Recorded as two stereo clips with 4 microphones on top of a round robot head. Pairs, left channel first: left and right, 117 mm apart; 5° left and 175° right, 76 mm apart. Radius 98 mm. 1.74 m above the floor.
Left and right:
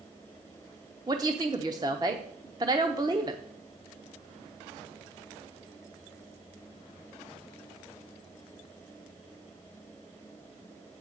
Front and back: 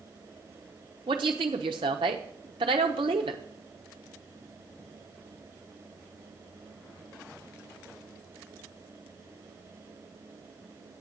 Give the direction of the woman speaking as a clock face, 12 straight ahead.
5 o'clock.